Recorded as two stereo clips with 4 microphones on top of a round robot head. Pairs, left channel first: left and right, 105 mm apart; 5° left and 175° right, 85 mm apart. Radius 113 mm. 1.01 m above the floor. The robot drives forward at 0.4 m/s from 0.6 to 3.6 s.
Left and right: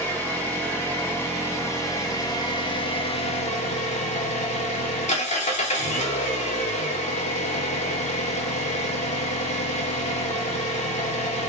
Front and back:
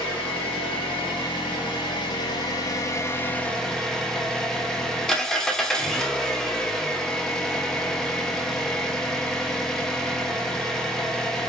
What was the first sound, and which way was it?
An engine running, 20° left.